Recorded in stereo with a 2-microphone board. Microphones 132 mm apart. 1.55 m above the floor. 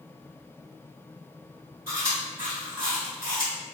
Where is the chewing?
15° right (ahead or behind), 1.4 m.